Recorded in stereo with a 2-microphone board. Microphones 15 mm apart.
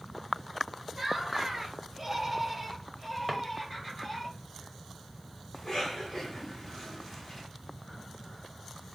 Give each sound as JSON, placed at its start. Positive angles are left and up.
{"t": 0.9, "sound": "laughter", "side_deg": -25, "distance_m": 1.6}
{"t": 3.3, "sound": "a drawer", "side_deg": -5, "distance_m": 0.6}
{"t": 5.5, "sound": "a cough", "side_deg": 50, "distance_m": 2.5}